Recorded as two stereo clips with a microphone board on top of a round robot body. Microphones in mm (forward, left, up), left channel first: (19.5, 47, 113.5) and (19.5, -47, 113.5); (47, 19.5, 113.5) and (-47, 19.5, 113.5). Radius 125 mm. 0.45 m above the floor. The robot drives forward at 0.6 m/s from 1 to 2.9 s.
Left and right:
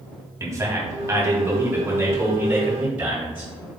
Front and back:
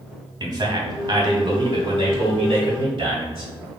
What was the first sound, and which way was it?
A man speaking, 145° right.